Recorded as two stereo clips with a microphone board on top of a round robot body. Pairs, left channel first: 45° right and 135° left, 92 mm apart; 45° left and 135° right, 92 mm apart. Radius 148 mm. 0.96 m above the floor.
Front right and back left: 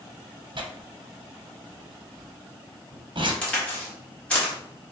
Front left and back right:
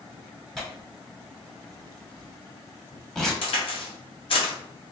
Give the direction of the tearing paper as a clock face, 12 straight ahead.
8 o'clock.